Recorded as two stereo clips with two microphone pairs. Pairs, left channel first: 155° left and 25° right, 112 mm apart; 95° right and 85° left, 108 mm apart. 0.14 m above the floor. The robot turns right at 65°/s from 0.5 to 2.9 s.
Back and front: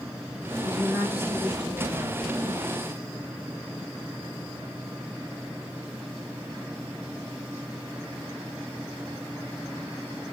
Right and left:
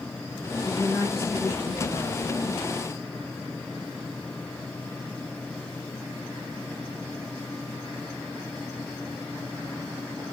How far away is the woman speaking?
About 2 m.